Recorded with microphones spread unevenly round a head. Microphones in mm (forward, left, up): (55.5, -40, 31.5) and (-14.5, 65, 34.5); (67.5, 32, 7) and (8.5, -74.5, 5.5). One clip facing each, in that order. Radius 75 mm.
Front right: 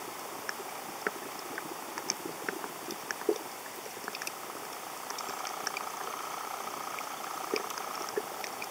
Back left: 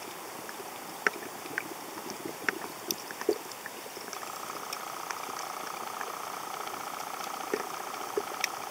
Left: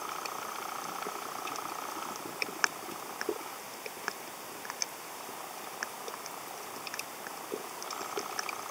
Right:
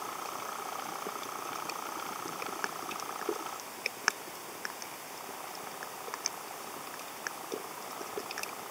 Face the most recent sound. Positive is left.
No sound to turn to.